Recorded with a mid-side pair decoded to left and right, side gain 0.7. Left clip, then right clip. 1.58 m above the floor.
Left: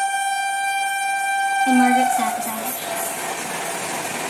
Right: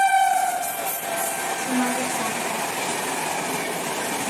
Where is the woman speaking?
45° left, 3 m.